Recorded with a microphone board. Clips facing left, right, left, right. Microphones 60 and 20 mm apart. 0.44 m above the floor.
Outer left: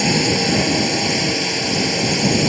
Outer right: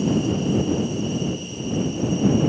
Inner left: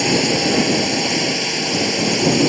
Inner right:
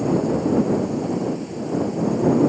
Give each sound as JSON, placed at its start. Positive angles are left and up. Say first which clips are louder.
{"t": 0.0, "sound": "a drone", "louder": "outer left 3 dB, inner left 4 dB", "side_deg": 80}